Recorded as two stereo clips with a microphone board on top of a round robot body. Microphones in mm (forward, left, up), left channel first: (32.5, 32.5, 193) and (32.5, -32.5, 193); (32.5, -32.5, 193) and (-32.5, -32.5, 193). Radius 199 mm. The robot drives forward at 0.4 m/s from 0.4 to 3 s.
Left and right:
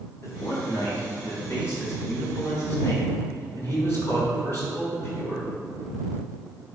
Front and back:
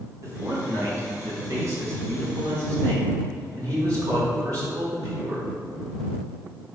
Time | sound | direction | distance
0.2 | a man speaking | 135° left | 4.5 m